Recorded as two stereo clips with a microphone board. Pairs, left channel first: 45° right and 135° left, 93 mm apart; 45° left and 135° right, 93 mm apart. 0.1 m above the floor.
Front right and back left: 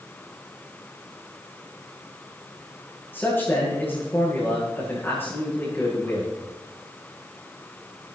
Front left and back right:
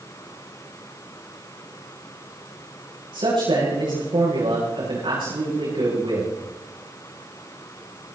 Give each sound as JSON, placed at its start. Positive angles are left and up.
{"t": 3.1, "sound": "a man speaking", "azimuth_deg": -110, "distance_m": 8.0}